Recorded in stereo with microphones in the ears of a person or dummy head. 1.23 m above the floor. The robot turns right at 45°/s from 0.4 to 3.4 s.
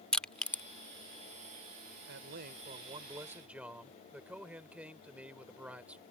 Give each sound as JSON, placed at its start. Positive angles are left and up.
{"t": 0.1, "sound": "crushing", "side_deg": 10}
{"t": 2.1, "sound": "a man speaking", "azimuth_deg": -65}